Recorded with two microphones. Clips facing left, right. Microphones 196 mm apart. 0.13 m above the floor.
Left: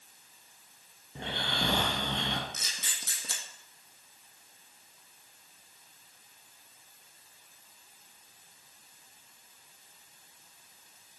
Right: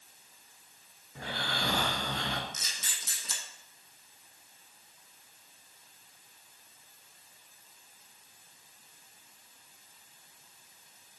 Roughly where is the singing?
No singing in this recording.